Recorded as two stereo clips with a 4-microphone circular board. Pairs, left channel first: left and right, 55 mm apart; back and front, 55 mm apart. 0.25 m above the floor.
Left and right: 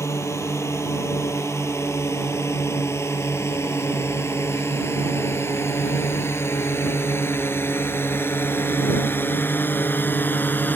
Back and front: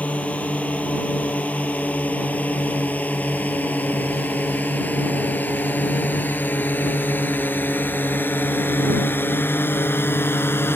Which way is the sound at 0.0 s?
115° left.